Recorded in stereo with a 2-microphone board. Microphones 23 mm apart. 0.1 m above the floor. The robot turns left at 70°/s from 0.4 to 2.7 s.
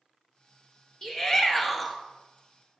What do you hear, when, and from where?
1.0 s a shout: 25° left (ahead or behind), 1.3 m; by 2.0 s centre (ahead or behind), 1.3 m